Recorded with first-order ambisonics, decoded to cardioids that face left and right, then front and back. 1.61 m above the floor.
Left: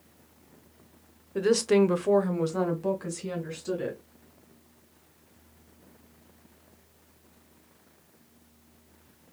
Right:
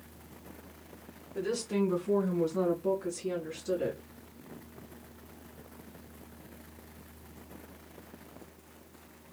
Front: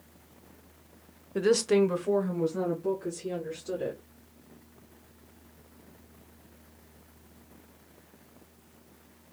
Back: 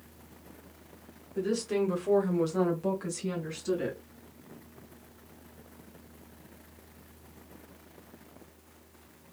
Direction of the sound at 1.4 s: 30° left.